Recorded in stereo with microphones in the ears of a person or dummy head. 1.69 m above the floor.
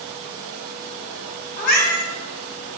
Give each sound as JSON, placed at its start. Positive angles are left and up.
{"t": 1.6, "sound": "a cat meowing", "side_deg": 40, "distance_m": 2.5}